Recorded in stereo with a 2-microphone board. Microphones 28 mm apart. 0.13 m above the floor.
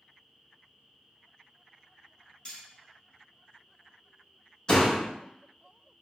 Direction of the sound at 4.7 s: 25° left (ahead or behind).